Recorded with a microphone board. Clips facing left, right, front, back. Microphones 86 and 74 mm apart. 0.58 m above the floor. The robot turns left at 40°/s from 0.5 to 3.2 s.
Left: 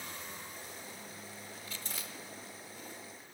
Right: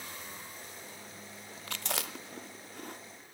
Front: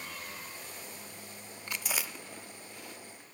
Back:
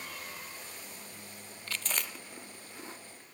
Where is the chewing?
70° right, 0.6 m; by 3.0 s 125° right, 0.6 m.